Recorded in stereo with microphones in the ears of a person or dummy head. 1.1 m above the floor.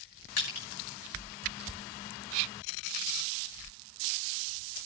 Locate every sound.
0.4 s crushing: 45° left (ahead or behind), 6 m